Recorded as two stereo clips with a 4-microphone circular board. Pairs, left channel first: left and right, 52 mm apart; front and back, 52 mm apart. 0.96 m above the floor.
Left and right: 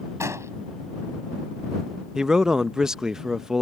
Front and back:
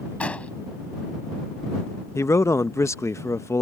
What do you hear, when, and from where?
0.2 s an explosion: 65° right
2.1 s a man speaking: 10° right